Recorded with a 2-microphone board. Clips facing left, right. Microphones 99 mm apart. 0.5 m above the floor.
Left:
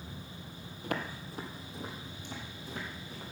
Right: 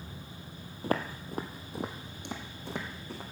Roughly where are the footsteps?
Right.